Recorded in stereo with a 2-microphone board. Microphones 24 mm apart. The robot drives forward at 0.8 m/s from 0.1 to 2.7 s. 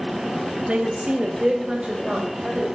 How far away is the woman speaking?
About 1.0 m.